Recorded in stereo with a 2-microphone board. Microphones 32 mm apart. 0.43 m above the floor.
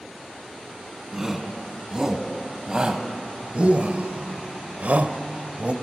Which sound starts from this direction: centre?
A shout, at 1.1 s.